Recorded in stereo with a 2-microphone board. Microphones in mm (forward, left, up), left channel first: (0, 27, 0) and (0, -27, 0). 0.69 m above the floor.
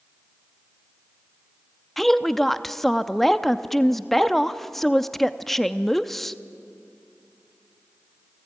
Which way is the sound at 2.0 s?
5° left (ahead or behind).